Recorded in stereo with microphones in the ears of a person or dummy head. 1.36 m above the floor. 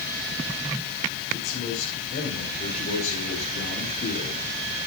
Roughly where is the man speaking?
Left.